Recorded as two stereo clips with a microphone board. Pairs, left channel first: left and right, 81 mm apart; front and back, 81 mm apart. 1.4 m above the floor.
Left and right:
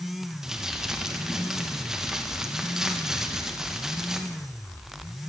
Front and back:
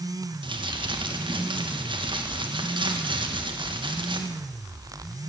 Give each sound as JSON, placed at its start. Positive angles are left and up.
{"t": 0.4, "sound": "crumpling", "azimuth_deg": -175, "distance_m": 1.6}